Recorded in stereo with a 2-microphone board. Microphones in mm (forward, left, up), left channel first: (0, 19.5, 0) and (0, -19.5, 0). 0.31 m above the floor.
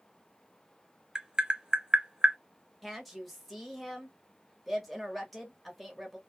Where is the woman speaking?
Centre (ahead or behind), 1.0 m.